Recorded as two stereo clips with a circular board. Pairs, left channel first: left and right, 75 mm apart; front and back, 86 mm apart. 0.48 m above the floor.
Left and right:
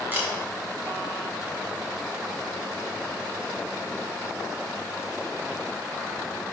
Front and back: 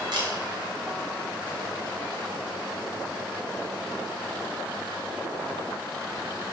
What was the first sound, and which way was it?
A camera shutter, 150° right.